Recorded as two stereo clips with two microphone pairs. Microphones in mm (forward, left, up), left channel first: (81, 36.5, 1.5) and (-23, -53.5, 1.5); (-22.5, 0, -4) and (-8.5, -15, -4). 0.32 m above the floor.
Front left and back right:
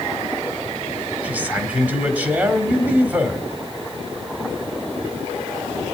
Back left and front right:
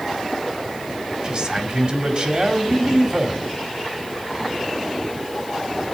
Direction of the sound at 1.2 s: 65° right.